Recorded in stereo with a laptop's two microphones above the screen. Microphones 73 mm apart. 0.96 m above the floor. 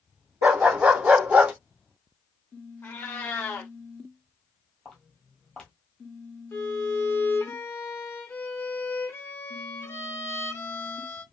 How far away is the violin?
About 0.7 m.